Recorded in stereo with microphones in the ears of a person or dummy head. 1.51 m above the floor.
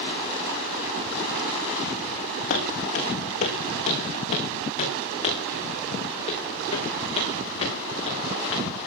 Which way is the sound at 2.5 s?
50° left (ahead or behind).